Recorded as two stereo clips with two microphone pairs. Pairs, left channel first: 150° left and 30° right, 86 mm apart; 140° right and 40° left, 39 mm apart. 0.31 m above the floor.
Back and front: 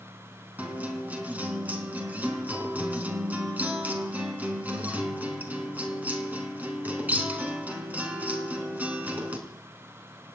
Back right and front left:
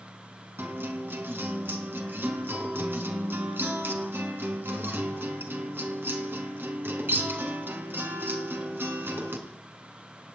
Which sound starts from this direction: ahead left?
A guitar, at 0.6 s.